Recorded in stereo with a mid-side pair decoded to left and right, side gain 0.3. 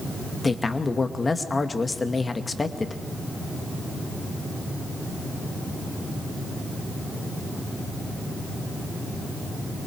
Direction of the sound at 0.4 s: 40° left.